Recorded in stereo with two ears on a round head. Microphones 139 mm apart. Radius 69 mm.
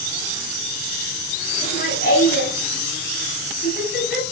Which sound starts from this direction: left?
Laughter, at 1.6 s.